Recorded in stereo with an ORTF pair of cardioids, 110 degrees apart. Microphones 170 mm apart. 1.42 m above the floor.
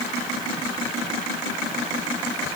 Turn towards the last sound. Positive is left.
No sound to turn to.